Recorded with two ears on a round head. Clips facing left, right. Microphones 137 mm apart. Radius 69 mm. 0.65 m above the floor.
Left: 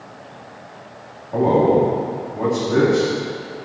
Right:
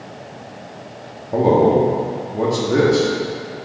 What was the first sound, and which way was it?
A man speaking, 35° right (ahead or behind).